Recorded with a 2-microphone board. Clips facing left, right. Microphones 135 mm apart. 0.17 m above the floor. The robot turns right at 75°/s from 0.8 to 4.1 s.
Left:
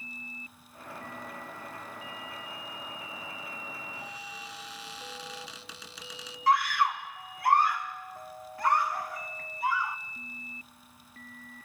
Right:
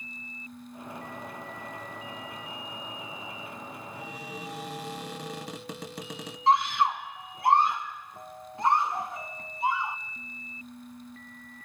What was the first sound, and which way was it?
A cupboard door, 55° right (ahead or behind).